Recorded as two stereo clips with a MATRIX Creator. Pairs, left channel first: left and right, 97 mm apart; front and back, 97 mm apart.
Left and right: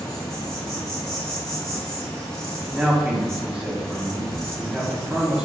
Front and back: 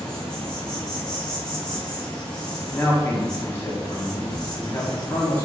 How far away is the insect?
About 0.9 m.